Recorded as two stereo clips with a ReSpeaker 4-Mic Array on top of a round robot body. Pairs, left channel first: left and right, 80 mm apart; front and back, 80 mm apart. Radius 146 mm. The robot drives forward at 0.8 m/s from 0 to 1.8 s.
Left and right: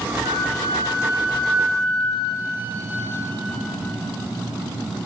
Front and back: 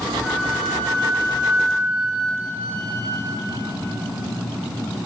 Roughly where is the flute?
Right.